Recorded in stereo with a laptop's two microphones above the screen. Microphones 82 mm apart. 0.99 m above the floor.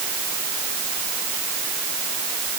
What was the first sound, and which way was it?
Only background noise.